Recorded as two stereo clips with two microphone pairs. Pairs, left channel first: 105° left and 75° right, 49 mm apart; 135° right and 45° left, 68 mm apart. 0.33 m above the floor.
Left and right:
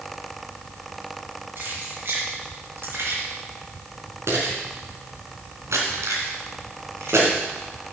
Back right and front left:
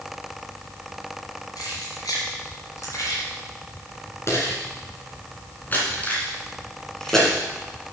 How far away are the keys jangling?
About 3.5 m.